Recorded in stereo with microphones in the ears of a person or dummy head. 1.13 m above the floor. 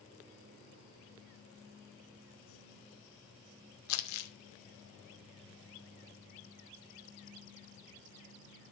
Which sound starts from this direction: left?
Crumpling, at 3.9 s.